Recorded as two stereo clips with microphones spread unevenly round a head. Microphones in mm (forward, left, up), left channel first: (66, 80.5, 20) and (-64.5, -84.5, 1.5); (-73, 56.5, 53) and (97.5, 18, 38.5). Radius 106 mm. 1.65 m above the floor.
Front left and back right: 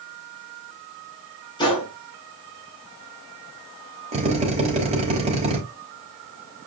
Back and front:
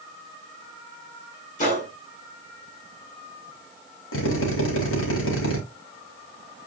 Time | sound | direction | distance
1.6 | a gunshot | 125° left | 6.5 m
4.1 | a drill | 170° left | 4 m